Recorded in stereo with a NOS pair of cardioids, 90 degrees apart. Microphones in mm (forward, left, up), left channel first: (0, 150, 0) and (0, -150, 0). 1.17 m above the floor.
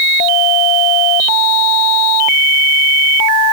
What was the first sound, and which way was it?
Only background noise.